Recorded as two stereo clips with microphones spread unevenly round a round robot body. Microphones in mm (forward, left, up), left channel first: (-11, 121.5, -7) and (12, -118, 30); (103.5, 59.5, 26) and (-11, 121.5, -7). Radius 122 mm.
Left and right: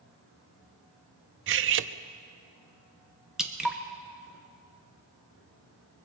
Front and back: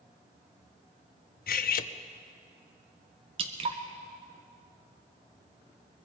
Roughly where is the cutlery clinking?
Ahead right.